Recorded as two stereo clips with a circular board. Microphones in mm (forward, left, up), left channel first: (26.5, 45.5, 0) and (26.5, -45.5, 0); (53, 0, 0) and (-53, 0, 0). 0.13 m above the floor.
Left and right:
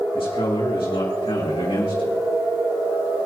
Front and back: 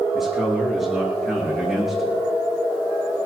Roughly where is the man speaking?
Left.